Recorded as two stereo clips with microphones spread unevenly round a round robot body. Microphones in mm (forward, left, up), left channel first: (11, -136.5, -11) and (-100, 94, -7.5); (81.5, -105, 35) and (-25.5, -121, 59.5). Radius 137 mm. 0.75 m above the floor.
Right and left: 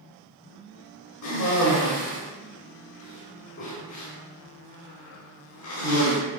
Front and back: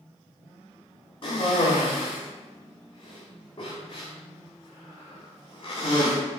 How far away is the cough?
About 1.8 m.